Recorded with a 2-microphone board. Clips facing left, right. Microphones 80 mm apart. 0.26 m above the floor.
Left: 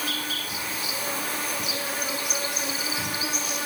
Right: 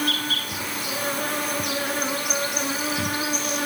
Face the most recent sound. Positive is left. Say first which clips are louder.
# right 5 dB
turn(degrees=-60)  # may be behind; listen again after turning